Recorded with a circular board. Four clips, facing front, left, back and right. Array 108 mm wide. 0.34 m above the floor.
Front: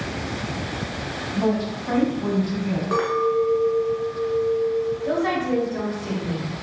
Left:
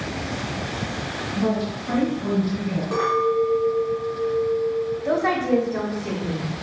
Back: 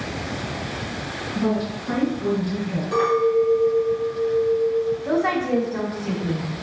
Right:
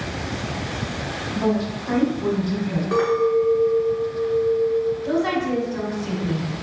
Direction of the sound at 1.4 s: 25° right.